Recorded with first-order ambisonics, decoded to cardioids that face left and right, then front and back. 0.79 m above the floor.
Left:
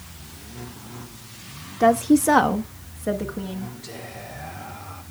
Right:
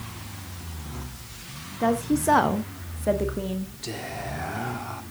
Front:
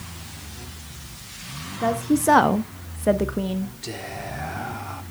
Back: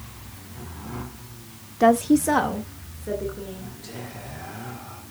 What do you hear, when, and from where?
1.8 s a woman speaking: 145° left, 0.7 m; by 3.7 s 10° right, 1.9 m
3.8 s whispering: 40° right, 1.8 m